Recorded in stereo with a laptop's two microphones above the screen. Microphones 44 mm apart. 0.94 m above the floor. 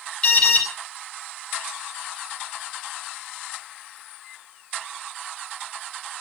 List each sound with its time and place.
0.2 s an alarm: 30° left (ahead or behind), 3 m